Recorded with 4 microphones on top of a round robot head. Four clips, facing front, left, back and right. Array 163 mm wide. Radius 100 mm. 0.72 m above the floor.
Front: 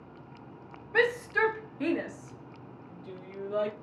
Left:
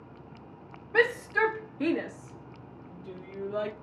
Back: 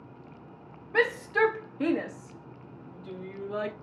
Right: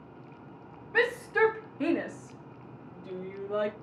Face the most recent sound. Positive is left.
turn(degrees=-115)